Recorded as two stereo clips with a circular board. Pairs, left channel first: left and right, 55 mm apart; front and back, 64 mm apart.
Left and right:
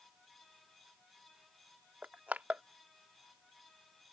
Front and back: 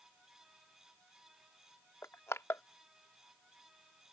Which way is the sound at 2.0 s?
30° right.